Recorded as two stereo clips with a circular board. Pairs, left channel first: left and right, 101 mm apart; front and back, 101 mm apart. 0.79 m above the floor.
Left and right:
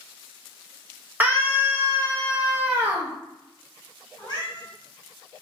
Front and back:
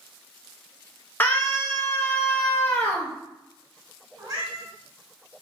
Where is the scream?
40° right, 0.6 m.